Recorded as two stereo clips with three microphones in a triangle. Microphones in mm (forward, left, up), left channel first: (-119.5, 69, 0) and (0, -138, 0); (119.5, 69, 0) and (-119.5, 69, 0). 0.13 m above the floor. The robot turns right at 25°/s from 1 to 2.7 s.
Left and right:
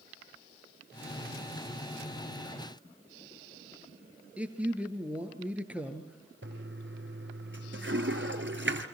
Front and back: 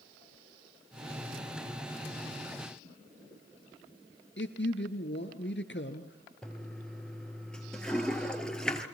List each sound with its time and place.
4.4 s a man speaking: 25° left, 2.5 m
6.4 s a toilet flushing: 85° right, 1.9 m